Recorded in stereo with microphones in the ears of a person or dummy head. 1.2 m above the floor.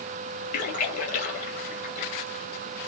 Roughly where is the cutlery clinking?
No cutlery clinking in this recording.